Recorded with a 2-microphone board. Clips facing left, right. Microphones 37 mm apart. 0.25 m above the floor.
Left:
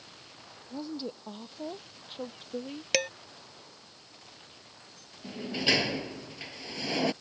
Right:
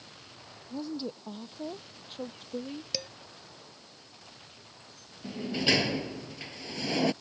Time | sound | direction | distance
0.7 | a woman speaking | 10° left (ahead or behind) | ?
2.9 | dishes clattering | 65° left (ahead or behind) | ?
5.2 | a sliding door | centre (ahead or behind) | ?